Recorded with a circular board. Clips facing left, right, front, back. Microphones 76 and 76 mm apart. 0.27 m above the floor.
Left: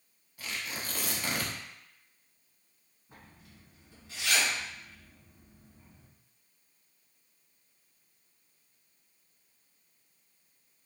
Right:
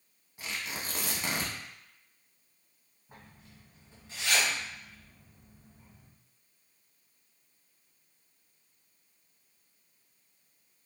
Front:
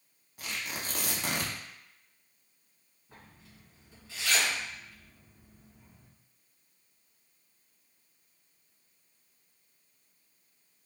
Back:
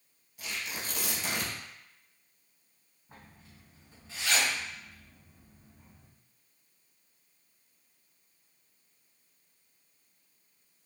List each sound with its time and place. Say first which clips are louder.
0.4 s tearing paper: even, front 1 dB; 25° right, 0.7 m
3.1 s a zipper: right 1 dB, back 1 dB; 130° right, 1.8 m